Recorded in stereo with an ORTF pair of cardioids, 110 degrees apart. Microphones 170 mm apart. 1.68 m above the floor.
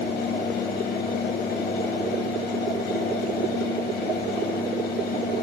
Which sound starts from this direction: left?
A fan, at 0.0 s.